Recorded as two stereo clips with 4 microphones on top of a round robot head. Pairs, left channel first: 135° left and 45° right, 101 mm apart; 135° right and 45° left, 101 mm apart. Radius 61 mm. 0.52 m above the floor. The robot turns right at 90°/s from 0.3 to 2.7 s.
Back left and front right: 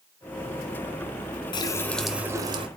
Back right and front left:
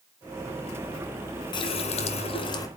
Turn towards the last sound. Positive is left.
turn(degrees=-75)